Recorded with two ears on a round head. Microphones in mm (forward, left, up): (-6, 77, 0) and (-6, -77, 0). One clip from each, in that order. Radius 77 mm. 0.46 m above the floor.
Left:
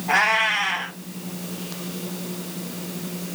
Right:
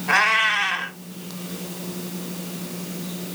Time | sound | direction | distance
0.1 | a cat meowing | 55° right (ahead or behind) | 1.1 m